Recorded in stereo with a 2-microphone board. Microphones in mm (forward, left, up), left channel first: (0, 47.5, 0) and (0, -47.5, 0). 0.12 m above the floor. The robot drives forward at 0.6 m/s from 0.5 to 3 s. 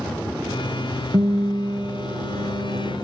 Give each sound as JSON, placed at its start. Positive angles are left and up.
{"t": 1.1, "sound": "a guitar", "side_deg": -45, "distance_m": 1.3}